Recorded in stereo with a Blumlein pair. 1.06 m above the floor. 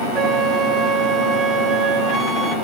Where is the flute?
20° right, 0.5 m.